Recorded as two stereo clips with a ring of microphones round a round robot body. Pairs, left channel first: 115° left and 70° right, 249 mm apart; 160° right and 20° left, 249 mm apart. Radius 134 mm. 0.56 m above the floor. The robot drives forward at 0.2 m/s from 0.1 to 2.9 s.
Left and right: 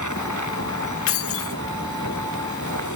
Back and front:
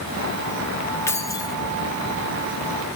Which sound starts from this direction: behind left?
Keys jangling, at 1.1 s.